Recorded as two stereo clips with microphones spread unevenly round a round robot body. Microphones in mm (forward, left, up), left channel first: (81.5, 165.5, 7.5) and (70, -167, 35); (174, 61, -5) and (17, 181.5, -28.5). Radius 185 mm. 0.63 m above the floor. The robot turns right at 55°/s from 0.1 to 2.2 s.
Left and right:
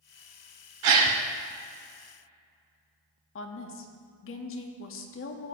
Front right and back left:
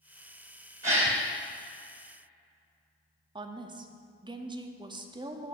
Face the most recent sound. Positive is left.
turn(degrees=100)